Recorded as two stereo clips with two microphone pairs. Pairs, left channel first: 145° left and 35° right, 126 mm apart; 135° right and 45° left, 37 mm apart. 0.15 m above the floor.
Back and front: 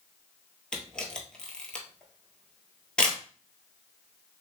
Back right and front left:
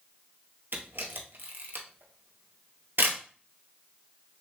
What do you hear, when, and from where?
0.7 s a camera shutter: 60° left, 0.9 m